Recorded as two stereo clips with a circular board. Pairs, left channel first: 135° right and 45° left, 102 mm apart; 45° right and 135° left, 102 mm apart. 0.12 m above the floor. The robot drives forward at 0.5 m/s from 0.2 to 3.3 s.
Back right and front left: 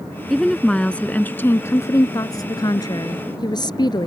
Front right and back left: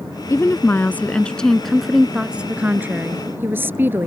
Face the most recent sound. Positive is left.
turn(degrees=-160)